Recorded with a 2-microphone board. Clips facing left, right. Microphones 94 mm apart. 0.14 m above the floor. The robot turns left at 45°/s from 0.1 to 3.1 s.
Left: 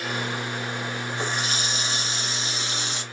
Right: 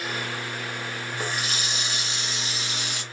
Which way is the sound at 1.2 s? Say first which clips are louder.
Left 1 dB; 130° left.